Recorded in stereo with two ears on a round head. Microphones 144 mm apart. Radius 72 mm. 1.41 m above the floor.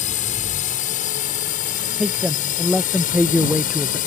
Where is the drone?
50° left (ahead or behind); by 4.1 s 55° left (ahead or behind).